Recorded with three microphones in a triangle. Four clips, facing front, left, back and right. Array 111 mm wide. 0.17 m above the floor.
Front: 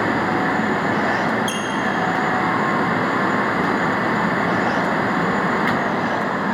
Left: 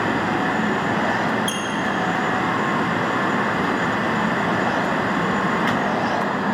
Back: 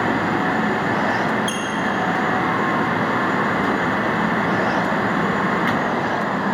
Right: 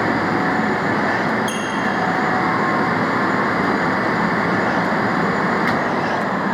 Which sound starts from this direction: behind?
A squeak, at 1.5 s.